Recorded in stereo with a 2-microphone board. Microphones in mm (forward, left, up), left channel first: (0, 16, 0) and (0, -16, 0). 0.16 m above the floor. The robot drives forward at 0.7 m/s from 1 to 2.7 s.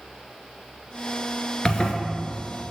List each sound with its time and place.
1.6 s a zipper: 25° left (ahead or behind), 1.5 m